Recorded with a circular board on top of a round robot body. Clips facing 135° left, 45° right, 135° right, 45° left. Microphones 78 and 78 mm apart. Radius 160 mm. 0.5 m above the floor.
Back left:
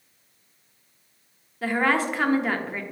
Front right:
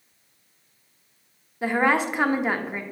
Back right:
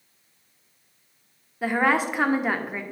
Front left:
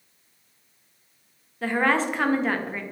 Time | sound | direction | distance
1.6 | a woman speaking | 80° right | 1.1 m